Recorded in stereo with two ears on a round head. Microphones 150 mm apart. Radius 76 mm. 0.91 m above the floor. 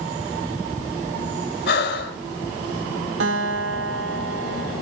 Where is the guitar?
75° right (ahead or behind), 4 m.